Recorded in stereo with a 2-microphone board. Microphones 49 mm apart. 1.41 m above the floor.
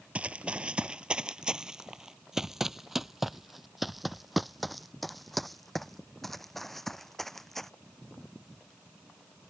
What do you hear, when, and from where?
0.1 s running footsteps: 25° right (ahead or behind); by 7.7 s 5° left (ahead or behind)